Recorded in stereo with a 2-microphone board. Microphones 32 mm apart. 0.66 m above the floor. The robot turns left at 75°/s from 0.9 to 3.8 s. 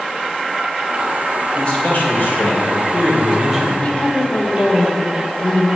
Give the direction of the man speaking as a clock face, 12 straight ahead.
7 o'clock.